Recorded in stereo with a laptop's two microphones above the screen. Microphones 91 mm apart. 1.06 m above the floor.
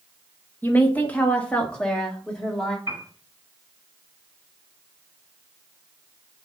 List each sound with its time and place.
0.6 s a woman speaking: 20° left (ahead or behind), 1.8 m; by 2.8 s 5° left (ahead or behind), 3 m
2.9 s a piano: 35° right (ahead or behind), 5.5 m